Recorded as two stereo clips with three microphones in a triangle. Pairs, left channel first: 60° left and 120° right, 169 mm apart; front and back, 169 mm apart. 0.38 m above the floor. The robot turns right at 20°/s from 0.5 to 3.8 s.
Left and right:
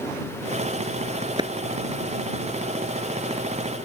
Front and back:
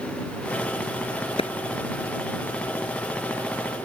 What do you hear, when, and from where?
1.4 s a clap: 55° right